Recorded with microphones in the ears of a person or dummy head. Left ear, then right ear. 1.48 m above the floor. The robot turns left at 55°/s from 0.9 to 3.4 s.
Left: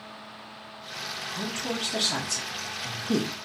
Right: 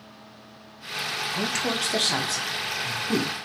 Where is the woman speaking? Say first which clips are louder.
Right 5 dB; 60° right (ahead or behind), 0.9 m; by 3.3 s 45° left (ahead or behind), 0.9 m.